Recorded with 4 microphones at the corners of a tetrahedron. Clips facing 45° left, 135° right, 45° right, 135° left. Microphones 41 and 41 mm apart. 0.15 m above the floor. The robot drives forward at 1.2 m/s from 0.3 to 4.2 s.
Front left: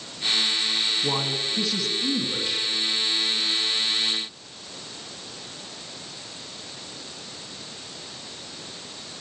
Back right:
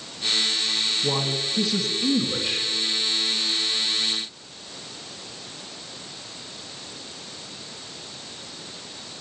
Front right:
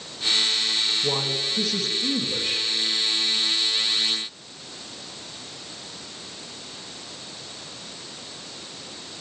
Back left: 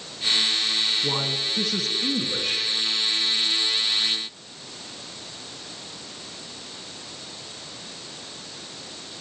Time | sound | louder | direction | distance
1.0 | a man speaking | back right 1 dB, front right 1 dB | 75° left | 1.5 m